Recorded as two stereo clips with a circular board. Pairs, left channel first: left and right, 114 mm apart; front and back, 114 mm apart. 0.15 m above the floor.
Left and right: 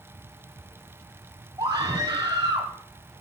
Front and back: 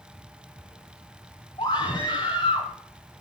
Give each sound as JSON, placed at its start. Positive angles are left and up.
{"t": 1.6, "sound": "a scream", "azimuth_deg": -35, "distance_m": 4.5}